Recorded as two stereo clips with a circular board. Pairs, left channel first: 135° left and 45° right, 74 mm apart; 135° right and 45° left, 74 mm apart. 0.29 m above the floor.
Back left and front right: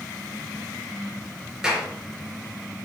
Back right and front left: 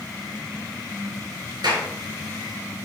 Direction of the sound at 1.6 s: 35° left.